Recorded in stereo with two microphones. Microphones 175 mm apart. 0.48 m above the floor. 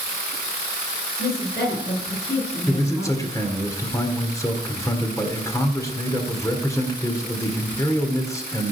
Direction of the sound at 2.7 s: 20° left (ahead or behind).